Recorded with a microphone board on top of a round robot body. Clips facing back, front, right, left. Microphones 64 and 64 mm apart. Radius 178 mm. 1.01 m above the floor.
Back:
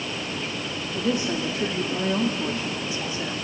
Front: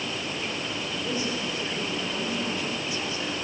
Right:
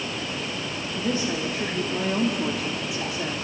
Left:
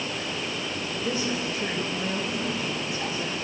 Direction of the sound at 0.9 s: 160° right.